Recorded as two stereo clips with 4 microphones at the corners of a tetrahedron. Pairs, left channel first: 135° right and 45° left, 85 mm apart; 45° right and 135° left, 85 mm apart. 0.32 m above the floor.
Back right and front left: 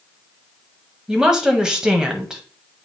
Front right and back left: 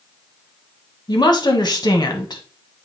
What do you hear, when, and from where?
1.1 s a woman speaking: 35° right, 1.6 m